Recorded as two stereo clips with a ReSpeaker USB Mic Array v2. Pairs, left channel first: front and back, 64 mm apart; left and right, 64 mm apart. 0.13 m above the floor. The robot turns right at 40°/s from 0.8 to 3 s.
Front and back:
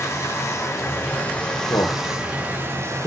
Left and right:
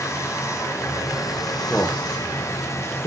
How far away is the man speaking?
About 5.5 m.